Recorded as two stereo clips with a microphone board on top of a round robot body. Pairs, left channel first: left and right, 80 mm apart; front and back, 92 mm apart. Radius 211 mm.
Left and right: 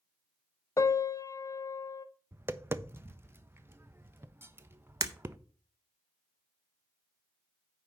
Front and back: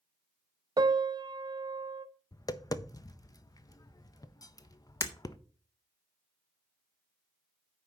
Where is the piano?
135° left, 0.6 m.